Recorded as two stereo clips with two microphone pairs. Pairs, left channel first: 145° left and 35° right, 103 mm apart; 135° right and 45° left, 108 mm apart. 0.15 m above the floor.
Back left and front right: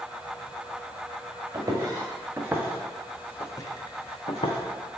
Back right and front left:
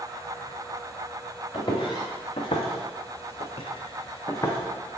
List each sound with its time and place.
1.5 s footsteps: 90° right, 1.1 m; by 4.6 s 155° left, 0.8 m